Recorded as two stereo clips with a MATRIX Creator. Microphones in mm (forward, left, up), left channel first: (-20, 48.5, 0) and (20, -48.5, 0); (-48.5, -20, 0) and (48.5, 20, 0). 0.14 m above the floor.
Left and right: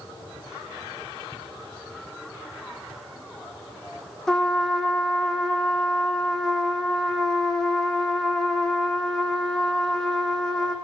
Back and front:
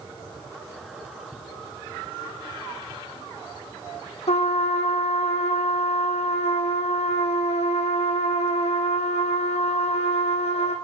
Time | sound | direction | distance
4.3 | a trumpet | 165° right | 1.4 m